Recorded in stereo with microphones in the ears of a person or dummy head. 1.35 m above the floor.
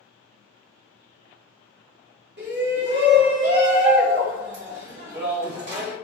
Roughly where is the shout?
Right.